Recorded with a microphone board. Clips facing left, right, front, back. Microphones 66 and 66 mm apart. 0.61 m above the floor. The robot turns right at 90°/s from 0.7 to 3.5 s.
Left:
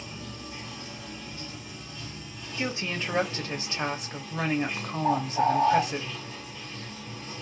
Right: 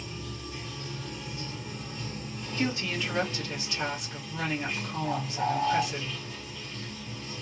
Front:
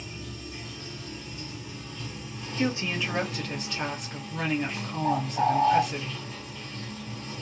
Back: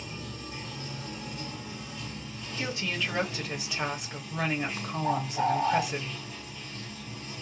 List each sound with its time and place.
0.0 s running water: 145° left, 1.6 m; by 7.4 s 35° left, 1.6 m
2.6 s a woman speaking: 25° left, 0.8 m; by 6.0 s 110° left, 0.8 m
5.0 s a bird: 55° left, 1.3 m